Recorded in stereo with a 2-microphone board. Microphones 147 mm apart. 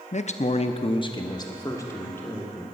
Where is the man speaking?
50° left (ahead or behind), 0.6 m; by 2.6 s 15° left (ahead or behind), 1.7 m.